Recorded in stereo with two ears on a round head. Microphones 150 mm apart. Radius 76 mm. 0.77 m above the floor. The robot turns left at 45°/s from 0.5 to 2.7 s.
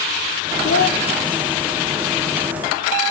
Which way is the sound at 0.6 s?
50° left (ahead or behind).